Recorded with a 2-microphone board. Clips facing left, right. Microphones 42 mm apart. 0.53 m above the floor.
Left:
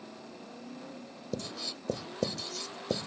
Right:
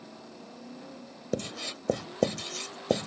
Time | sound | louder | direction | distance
1.3 | writing | right 5 dB | 65° right (ahead or behind) | ?